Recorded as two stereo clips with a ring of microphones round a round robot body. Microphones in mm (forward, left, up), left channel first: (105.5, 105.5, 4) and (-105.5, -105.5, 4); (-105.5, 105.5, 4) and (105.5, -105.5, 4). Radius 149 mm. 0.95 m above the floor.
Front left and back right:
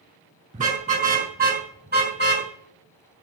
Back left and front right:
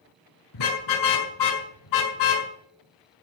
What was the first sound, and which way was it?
A car horn, 160° left.